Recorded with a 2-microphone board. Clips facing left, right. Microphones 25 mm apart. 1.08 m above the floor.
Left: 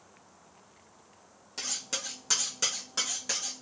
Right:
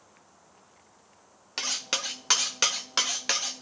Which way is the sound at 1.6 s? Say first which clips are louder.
Right 6 dB; 55° right (ahead or behind).